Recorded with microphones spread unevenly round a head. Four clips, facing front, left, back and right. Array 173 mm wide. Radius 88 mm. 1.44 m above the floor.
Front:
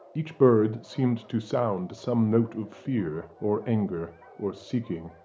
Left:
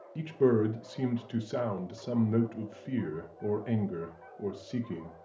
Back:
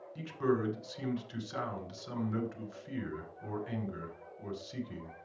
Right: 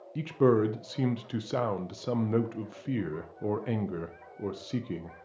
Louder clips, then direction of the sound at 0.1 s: Right 1 dB, front 12 dB; 10° right.